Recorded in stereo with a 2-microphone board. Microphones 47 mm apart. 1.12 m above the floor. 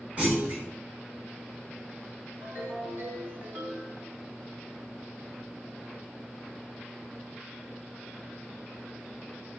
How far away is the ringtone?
About 2 m.